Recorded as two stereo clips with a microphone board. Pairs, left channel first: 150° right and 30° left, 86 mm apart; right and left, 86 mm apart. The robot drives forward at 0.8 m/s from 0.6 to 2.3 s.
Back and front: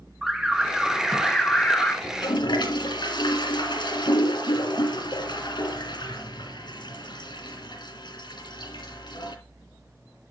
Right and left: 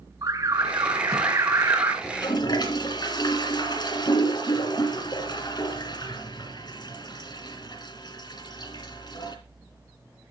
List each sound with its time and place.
0.2 s an alarm: 105° left, 2.5 m; by 1.9 s 135° left, 2.5 m
2.0 s a toilet flushing: 120° right, 3.5 m